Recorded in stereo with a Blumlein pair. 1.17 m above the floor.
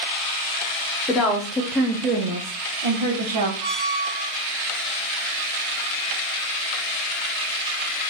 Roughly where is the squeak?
Ahead right.